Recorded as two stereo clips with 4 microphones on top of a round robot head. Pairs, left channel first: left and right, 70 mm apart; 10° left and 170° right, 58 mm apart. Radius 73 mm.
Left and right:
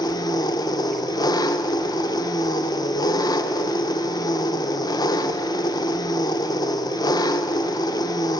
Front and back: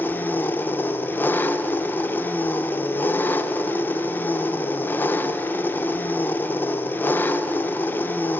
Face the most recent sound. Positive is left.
turn(degrees=65)